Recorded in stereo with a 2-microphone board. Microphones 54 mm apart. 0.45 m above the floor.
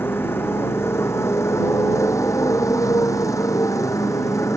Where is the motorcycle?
45° left (ahead or behind); by 4.6 s 70° left (ahead or behind).